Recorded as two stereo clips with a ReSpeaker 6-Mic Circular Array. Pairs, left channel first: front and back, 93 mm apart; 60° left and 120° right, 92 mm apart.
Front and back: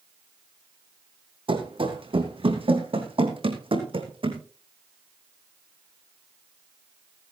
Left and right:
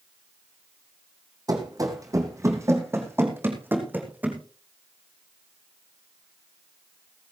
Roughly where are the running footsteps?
Behind.